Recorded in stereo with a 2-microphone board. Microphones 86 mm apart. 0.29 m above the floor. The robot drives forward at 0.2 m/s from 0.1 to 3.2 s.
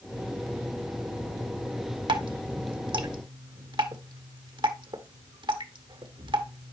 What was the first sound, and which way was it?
Dripping, 85° right.